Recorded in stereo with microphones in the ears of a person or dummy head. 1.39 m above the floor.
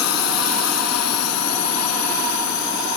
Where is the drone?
90° left; by 3.0 s 75° left (ahead or behind).